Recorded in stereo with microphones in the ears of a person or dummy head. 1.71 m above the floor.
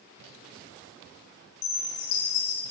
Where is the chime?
70° left (ahead or behind), 5 m.